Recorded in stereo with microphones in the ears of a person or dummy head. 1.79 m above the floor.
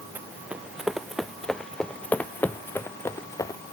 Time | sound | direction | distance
0.1 | running footsteps | 10° right (ahead or behind) | ?